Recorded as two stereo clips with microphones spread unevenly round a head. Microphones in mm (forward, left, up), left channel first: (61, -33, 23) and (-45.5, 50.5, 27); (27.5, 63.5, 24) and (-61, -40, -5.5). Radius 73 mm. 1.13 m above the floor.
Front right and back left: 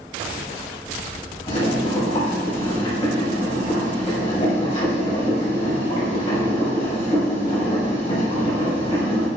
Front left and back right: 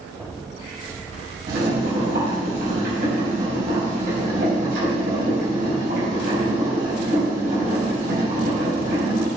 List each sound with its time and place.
1.5 s boiling: 90° right, 4 m